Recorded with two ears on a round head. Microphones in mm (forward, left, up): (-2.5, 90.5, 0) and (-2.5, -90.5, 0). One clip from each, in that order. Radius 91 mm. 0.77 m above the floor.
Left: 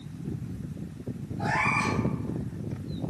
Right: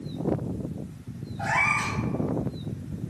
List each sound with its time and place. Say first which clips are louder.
1.4 s a cat meowing: right 2 dB; 65° right (ahead or behind), 2.0 m